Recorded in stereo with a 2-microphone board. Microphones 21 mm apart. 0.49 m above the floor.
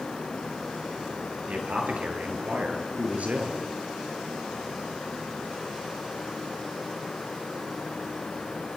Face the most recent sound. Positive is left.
turn(degrees=-80)